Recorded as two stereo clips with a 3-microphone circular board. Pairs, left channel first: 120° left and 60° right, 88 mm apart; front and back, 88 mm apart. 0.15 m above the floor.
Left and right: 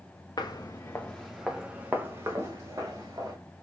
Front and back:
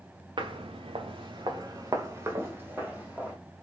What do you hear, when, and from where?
0.4 s footsteps: 160° left, 0.7 m; by 3.4 s 105° right, 1.6 m